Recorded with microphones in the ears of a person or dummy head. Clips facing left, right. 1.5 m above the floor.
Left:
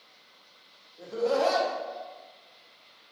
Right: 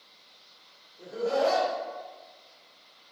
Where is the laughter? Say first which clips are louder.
Left 1 dB; 75° left (ahead or behind), 1.0 m.